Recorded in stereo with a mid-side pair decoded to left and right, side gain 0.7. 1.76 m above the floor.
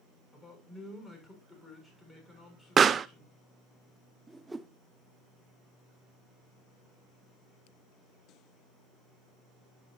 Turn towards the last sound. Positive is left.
turn(degrees=-10)